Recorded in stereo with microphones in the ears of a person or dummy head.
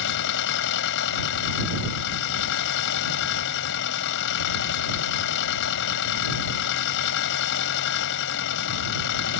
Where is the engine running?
65° left (ahead or behind).